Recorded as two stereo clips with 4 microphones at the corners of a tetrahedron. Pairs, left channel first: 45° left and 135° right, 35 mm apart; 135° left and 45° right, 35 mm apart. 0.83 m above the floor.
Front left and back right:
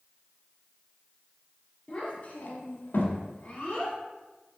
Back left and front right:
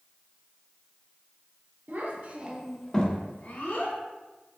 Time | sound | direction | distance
1.9 | a child speaking | 15° right | 1.2 m